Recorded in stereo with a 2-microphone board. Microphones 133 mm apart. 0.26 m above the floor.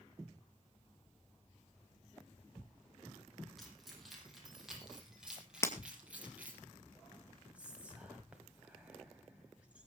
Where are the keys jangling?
Centre (ahead or behind), 7 m; by 6.6 s 10° right (ahead or behind), 4.5 m.